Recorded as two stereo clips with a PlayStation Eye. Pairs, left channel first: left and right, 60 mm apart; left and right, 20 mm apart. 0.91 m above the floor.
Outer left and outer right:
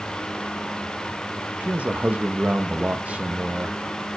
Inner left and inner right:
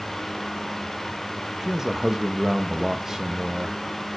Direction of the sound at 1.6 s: 25° right (ahead or behind).